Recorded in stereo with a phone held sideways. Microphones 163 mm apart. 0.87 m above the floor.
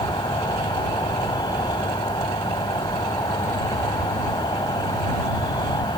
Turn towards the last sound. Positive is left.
turn(degrees=25)  # may be behind; listen again after turning